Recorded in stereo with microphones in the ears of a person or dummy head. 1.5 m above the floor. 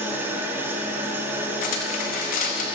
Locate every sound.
0.0 s an engine running: 15° right (ahead or behind), 1.6 m
1.6 s cutlery clinking: 45° left (ahead or behind), 1.3 m